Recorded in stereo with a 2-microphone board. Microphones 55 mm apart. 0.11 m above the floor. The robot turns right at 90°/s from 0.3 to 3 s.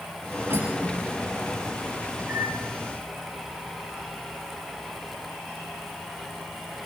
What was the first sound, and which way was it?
Cutlery clinking, 70° right (ahead or behind).